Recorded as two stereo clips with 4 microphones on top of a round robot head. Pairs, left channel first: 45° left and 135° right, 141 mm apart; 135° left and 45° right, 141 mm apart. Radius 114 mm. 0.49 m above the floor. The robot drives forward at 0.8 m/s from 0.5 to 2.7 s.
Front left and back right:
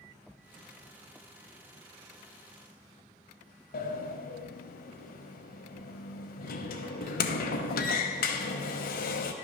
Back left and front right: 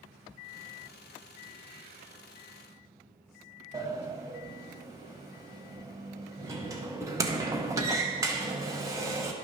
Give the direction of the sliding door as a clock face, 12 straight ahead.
11 o'clock.